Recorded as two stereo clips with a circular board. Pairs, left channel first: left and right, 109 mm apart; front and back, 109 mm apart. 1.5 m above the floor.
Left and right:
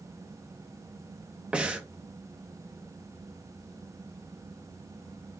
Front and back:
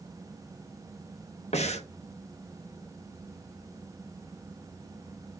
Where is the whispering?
No whispering in this recording.